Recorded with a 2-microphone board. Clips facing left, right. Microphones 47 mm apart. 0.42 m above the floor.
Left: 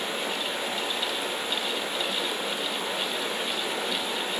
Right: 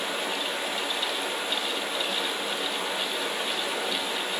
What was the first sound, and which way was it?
Running water, centre (ahead or behind).